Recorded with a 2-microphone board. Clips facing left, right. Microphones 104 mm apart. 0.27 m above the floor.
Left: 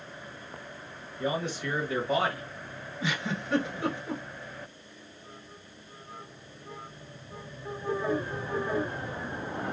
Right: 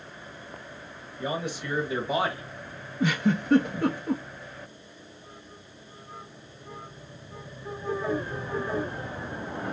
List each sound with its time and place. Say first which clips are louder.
1.2 s a man speaking: left 1 dB; 10° right (ahead or behind), 1.1 m; by 2.4 s 15° right (ahead or behind), 1.3 m
3.0 s a giggle: right 8 dB; 60° right (ahead or behind), 0.8 m